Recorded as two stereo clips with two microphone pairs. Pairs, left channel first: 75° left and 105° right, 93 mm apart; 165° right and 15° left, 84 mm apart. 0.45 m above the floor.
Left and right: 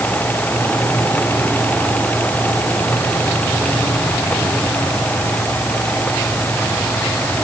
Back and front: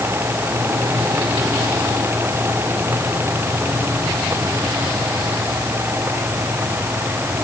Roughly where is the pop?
I don't hear a pop.